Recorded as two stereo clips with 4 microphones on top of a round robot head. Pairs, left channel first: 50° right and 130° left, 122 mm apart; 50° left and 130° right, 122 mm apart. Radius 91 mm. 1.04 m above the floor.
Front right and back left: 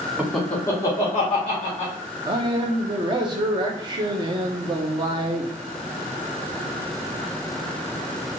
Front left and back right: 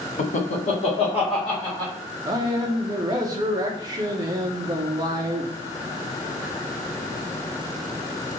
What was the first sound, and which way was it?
Laughter, 55° left.